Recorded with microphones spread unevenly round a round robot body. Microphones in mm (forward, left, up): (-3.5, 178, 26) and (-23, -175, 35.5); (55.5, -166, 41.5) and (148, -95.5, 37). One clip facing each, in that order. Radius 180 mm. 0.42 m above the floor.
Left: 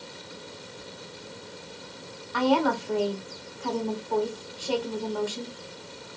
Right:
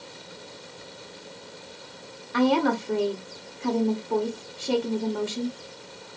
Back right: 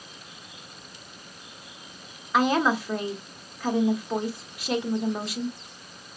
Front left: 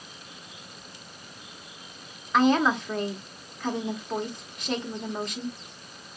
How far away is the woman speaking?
About 1.1 m.